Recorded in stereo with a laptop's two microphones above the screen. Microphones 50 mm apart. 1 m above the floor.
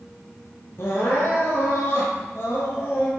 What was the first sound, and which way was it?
Crying, 50° left (ahead or behind).